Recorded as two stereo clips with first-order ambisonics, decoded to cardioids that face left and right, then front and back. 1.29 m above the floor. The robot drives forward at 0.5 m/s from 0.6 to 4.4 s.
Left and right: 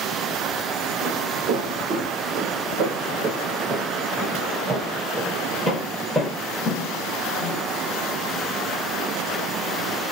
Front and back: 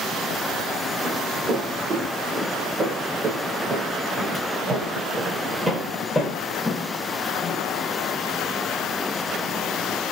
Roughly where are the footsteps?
Behind right.